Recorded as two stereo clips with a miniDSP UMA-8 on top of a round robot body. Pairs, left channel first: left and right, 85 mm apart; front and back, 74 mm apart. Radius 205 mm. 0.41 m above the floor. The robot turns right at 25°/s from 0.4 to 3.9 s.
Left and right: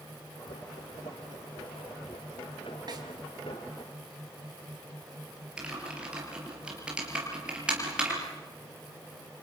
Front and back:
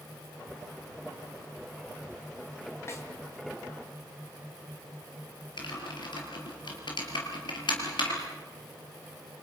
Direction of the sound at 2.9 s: 55° right.